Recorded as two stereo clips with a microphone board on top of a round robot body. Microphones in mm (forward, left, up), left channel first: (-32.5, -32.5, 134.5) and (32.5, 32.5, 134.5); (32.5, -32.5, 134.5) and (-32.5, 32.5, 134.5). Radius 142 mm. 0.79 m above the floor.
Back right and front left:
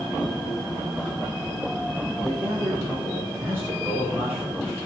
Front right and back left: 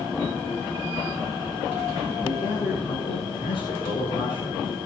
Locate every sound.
2.2 s a man speaking: 25° right, 6 m